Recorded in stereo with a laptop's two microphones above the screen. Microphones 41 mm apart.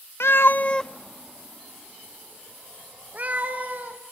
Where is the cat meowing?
75° left (ahead or behind), 0.6 m; by 4.0 s 45° right (ahead or behind), 3.5 m.